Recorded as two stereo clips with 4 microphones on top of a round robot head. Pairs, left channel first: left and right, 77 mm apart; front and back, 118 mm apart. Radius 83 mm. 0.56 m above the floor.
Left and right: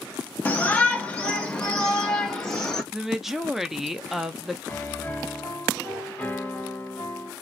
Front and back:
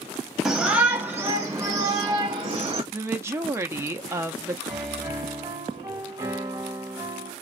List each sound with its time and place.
0.5 s a shout: 100° left, 1.3 m; by 2.8 s 175° left, 1.7 m
2.9 s a woman speaking: 170° right, 0.6 m
4.7 s a piano: 145° left, 1.2 m